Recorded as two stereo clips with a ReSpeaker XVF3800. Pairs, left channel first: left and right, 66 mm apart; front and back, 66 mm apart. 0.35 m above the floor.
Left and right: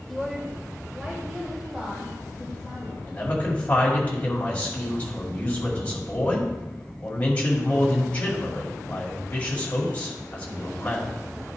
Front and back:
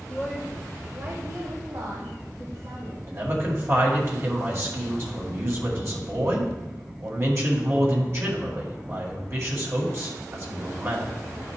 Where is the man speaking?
155° left, 2 m.